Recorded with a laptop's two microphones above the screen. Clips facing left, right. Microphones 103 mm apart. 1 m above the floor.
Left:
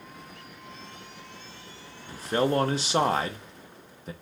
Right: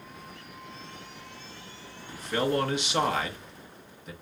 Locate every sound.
2.1 s a man speaking: 35° left (ahead or behind), 0.9 m